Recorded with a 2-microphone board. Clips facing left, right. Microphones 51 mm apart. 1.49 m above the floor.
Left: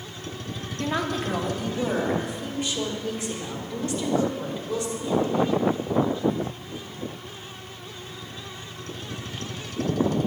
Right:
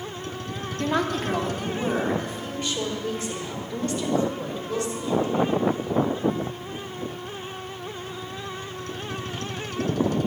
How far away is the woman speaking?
About 1.5 m.